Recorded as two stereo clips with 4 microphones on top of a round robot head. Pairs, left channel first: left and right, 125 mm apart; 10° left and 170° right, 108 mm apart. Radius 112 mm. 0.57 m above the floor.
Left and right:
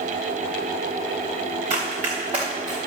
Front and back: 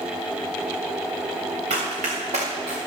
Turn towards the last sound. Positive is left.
turn(degrees=-150)